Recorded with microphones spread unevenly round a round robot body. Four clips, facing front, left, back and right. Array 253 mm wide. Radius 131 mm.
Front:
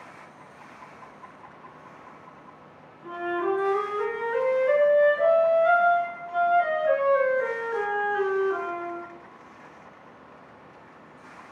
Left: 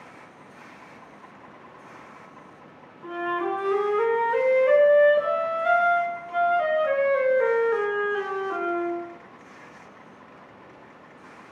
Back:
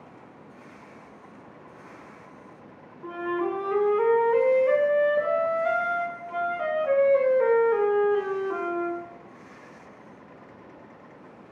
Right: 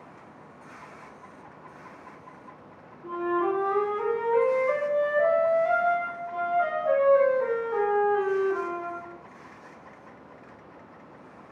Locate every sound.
3.0 s a flute: 130° left, 0.9 m